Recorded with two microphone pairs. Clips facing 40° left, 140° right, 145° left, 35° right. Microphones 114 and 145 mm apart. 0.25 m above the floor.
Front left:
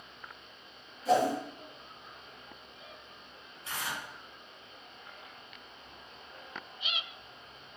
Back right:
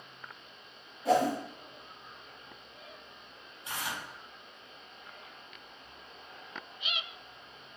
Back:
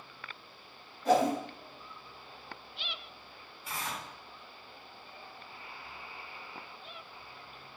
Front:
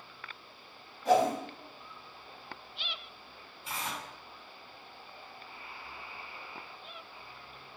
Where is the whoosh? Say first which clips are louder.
Even, front 1 dB; 120° right, 2.5 m.